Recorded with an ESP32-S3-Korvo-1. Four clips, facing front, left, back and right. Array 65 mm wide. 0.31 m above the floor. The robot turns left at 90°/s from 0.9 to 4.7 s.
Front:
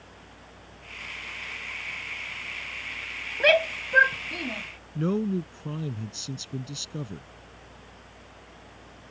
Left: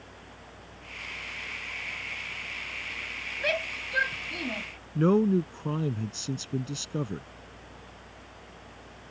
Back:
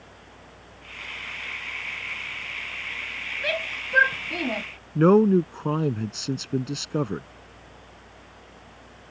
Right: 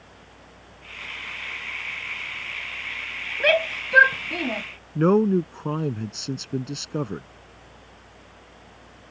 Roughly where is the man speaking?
Behind right.